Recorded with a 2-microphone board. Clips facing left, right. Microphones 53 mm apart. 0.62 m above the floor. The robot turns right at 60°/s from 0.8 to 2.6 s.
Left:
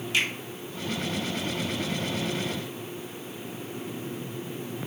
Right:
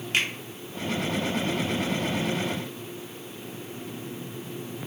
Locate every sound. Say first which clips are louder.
0.1 s a finger snap: even; 50° right (ahead or behind), 1.0 m